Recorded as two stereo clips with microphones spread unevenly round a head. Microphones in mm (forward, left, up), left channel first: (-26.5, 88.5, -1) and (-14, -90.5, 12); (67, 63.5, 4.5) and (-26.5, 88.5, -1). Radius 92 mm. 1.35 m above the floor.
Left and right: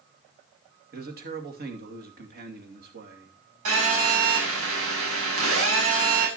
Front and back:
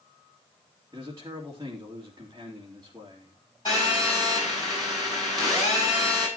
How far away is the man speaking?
About 2.5 m.